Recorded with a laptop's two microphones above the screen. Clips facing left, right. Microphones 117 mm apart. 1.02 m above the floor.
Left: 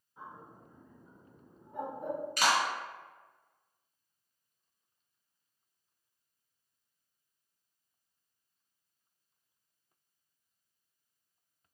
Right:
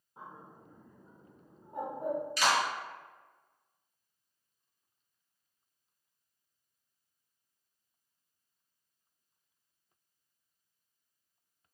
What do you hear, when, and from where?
0.2 s a bird: 40° right (ahead or behind), 1.2 m
2.4 s a clap: 55° left (ahead or behind), 1.2 m